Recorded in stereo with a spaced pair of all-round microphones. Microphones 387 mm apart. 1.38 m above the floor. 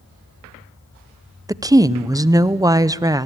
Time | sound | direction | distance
1.5 | a woman speaking | 10° right (ahead or behind) | 0.6 m